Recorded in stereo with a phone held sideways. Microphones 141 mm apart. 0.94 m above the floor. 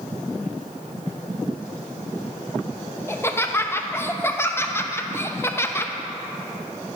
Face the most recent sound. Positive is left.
turn(degrees=20)  # may be behind; listen again after turning